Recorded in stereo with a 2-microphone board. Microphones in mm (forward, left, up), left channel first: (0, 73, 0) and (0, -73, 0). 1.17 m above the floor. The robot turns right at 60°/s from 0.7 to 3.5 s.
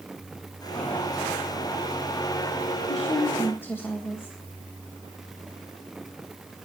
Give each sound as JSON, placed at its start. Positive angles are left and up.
{"t": 2.8, "sound": "a woman speaking", "azimuth_deg": 125, "distance_m": 1.6}